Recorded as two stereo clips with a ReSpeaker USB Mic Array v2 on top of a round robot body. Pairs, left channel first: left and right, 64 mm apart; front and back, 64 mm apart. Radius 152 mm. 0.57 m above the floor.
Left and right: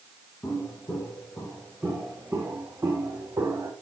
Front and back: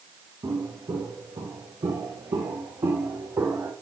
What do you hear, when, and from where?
0.4 s footsteps: 145° left, 2.5 m; by 3.7 s 135° right, 2.5 m